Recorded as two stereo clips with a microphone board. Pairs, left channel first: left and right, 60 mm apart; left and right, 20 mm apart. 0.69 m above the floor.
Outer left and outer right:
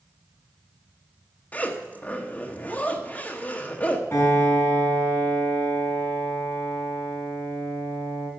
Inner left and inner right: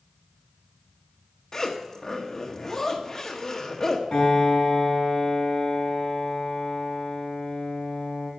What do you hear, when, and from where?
1.5 s a zipper: 25° left (ahead or behind), 1.5 m
4.1 s a piano: 40° left (ahead or behind), 5 m